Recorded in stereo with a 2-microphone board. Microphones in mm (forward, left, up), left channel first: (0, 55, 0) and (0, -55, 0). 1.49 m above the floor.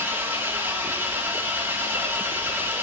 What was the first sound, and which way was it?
An engine running, 20° right (ahead or behind).